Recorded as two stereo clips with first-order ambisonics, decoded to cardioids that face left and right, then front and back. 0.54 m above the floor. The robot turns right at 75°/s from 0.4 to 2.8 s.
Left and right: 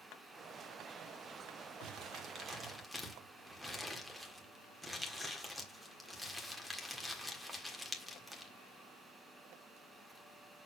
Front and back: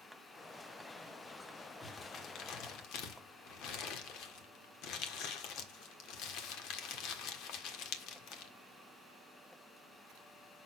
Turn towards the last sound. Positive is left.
turn(degrees=-5)